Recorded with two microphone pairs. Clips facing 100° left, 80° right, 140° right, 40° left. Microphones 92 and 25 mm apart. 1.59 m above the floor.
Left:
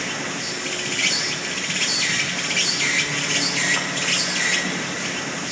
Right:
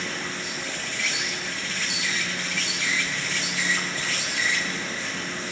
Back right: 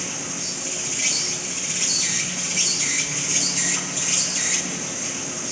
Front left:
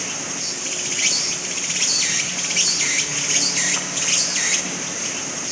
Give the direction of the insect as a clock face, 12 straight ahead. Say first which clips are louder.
Left 3 dB, front left 2 dB; 9 o'clock.